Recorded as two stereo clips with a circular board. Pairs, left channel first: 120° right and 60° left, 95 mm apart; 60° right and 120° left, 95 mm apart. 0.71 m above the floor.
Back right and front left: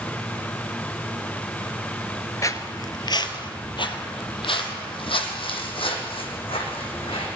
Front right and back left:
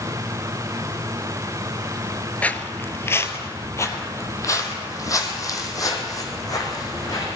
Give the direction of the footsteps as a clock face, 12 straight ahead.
4 o'clock.